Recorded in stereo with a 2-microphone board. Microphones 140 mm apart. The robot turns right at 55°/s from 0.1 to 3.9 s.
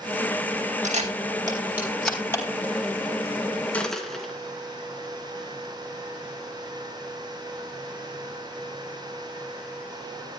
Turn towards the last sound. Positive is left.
turn(degrees=5)  # may be behind; listen again after turning